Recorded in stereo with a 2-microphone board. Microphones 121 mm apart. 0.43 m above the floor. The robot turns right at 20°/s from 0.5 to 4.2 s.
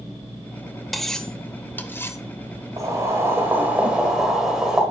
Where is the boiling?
30° right (ahead or behind), 2.0 m; by 4.8 s 5° right (ahead or behind), 2.0 m.